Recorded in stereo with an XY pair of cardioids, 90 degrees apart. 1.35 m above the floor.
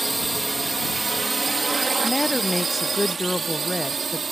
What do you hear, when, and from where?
0.0 s a drone: 15° right; by 4.3 s 45° right
2.0 s a woman speaking: 15° left